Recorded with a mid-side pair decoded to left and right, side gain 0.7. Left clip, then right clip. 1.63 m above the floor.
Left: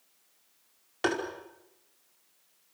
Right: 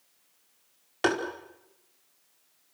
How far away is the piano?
I don't hear a piano.